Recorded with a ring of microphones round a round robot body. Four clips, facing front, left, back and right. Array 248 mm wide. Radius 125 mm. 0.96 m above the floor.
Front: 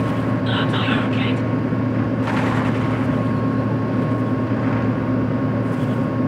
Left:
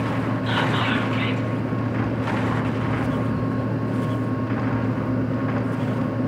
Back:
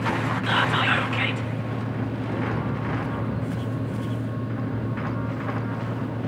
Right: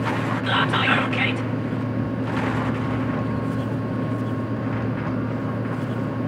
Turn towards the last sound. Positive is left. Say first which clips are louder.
# right 3 dB, front 3 dB
turn(degrees=-110)